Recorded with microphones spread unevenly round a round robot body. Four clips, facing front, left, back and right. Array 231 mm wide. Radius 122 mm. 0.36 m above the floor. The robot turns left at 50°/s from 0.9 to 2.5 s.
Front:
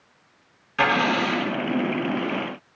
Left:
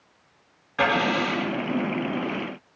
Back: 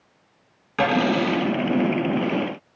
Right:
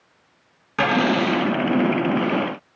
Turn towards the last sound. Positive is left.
turn(degrees=170)